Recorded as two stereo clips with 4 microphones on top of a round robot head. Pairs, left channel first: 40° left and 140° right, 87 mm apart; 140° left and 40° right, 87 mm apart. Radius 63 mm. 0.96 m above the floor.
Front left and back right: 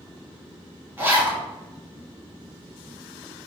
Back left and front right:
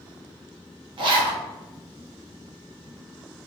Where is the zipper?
70° right, 1.2 m.